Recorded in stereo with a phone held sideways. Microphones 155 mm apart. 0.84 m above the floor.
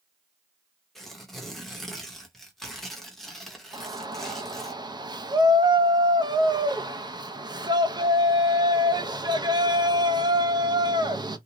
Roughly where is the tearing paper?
Centre.